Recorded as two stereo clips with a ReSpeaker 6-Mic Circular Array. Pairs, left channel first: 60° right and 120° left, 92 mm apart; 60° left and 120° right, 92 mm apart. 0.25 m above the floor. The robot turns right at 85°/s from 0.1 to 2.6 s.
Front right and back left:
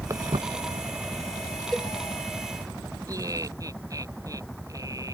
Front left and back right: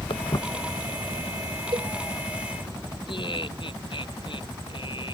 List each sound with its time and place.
0.1 s footsteps: 65° left; by 2.7 s 30° left
1.7 s a cowbell: 145° right; by 1.9 s 130° right
3.1 s laughter: 70° left